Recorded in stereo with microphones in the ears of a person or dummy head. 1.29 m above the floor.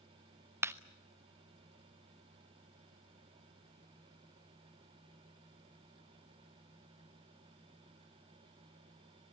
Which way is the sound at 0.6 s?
10° right (ahead or behind).